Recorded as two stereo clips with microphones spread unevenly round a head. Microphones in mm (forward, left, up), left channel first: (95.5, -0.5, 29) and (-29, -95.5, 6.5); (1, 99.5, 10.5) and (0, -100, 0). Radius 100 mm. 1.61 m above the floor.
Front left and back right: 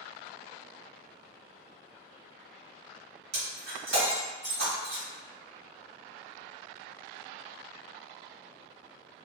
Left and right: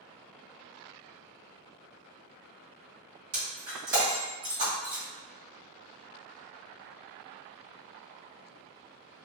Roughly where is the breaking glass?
Behind right.